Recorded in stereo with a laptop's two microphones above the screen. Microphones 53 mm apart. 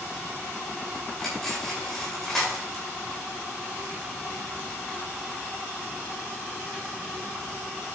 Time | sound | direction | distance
1.2 | cutlery clinking | 10° left (ahead or behind) | 4 m